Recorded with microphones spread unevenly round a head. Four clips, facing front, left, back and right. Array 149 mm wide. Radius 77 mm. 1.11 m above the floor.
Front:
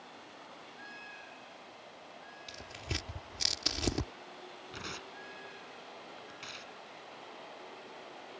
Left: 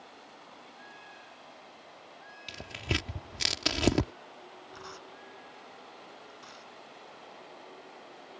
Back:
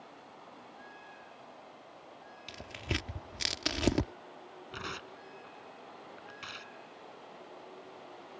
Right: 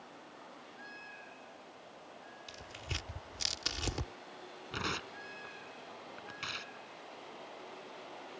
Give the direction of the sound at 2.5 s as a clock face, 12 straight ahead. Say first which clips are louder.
Left 12 dB, back 5 dB; 8 o'clock.